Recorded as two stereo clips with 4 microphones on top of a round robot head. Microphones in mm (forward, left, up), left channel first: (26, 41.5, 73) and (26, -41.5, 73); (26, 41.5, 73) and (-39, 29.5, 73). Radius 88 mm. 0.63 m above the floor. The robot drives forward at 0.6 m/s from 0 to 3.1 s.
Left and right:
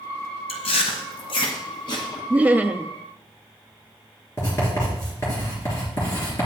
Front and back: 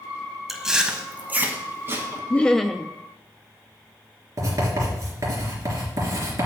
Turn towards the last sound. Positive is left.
turn(degrees=155)